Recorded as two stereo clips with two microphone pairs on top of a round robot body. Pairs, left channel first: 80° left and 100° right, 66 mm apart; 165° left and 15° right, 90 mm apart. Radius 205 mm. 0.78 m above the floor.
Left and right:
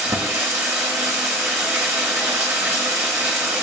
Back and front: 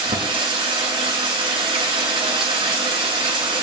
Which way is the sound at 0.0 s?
40° right.